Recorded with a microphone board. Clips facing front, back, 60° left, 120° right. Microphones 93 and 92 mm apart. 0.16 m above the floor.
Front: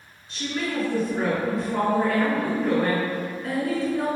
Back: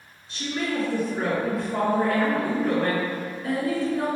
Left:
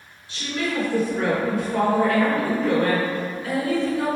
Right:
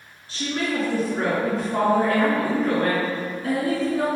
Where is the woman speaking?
90° right, 1.6 m.